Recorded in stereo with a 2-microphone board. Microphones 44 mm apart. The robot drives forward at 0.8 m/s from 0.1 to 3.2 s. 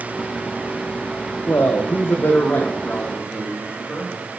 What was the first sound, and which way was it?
A man speaking, 75° left (ahead or behind).